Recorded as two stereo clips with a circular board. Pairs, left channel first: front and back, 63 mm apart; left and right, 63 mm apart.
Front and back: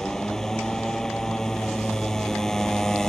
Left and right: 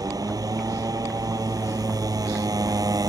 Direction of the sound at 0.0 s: 85° right.